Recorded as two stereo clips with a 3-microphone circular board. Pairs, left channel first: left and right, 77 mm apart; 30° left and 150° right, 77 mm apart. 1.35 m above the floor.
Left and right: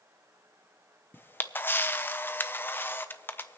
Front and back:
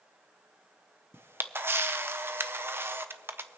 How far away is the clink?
I don't hear a clink.